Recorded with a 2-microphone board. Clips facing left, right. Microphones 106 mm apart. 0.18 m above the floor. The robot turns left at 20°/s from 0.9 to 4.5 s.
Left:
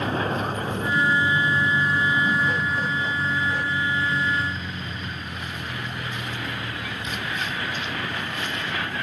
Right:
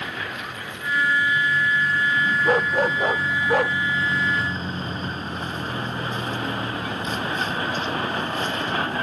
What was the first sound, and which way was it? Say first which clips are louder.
A vehicle: left 7 dB; 35° left.